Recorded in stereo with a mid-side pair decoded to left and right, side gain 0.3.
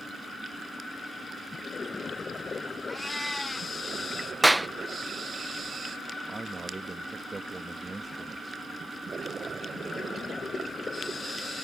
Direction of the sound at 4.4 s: 5° right.